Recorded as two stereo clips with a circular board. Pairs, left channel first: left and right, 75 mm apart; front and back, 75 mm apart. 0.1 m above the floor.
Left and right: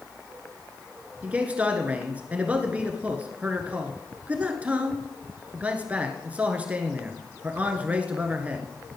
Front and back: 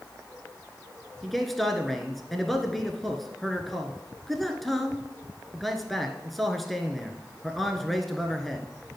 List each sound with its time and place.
1.2 s a man speaking: 85° right, 1.2 m